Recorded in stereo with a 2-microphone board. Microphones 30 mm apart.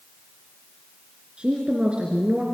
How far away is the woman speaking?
About 4 m.